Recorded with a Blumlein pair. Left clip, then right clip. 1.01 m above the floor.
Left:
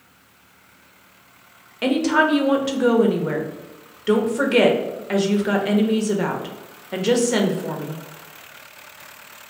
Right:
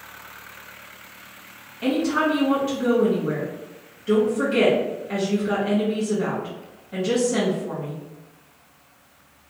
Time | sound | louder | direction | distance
1.8 | a woman speaking | left 4 dB | 60° left | 0.7 m